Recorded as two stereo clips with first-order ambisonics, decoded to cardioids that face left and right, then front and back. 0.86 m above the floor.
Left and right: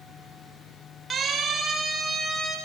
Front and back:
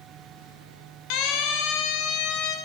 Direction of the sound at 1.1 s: 20° right.